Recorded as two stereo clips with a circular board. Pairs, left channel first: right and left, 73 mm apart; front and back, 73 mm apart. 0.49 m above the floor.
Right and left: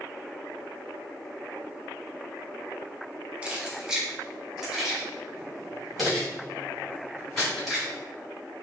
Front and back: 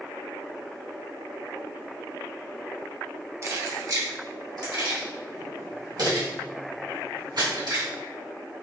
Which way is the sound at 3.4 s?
160° left.